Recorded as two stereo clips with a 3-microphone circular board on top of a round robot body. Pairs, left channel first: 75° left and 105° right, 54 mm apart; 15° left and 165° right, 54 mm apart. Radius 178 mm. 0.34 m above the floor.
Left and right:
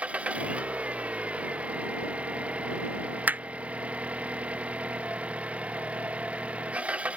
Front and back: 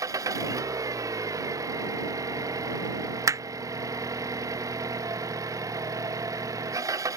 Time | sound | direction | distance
0.0 | an engine running | 175° right | ?
3.3 | hammering | 165° right | ?